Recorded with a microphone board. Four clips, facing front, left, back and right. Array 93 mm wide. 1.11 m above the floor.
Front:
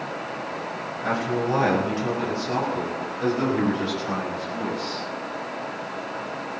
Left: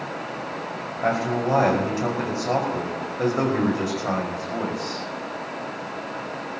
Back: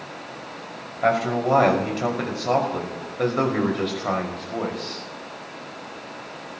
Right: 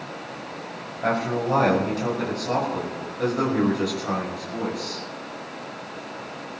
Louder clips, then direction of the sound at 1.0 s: Left 1 dB, back 4 dB; 170° left.